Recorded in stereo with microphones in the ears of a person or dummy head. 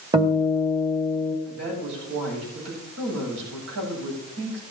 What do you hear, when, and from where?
0.1 s a guitar: 25° right (ahead or behind), 2.5 m
1.4 s a woman speaking: 70° right (ahead or behind), 8.5 m